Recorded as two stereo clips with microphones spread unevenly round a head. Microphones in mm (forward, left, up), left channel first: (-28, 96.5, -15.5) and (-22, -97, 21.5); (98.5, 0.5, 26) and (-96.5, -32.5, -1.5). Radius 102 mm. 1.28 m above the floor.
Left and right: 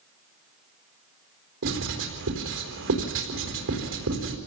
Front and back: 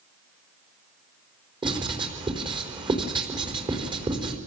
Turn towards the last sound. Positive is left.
turn(degrees=-105)